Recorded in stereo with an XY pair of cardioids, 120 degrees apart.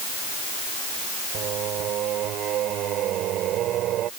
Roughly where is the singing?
Ahead right.